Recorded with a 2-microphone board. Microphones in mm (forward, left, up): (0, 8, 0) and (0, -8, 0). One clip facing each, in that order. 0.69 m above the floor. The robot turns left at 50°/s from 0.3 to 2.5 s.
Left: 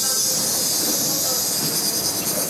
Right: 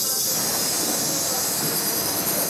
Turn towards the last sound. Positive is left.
turn(degrees=15)